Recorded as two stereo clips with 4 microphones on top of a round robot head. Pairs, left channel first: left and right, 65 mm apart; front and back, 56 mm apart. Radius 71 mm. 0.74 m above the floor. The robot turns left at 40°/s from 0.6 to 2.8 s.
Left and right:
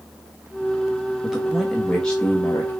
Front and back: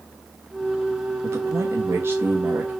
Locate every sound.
1.2 s a man speaking: 165° right, 1.1 m; by 2.7 s 135° left, 1.1 m